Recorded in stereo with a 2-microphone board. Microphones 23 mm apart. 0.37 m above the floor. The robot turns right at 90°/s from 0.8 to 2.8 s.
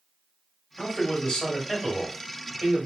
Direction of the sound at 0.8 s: 85° left.